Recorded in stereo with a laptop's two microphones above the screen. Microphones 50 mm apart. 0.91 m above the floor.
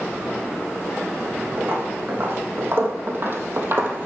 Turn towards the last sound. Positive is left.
turn(degrees=-40)  # may be behind; listen again after turning